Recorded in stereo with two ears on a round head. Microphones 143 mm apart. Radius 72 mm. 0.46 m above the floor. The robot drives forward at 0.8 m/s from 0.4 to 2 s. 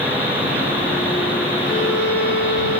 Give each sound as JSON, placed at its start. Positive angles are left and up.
{"t": 1.6, "sound": "a violin", "side_deg": 80, "distance_m": 5.0}